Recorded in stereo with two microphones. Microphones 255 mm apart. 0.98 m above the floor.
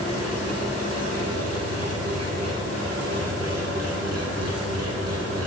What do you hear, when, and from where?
0.0 s an engine running: 75° right (ahead or behind), 2.5 m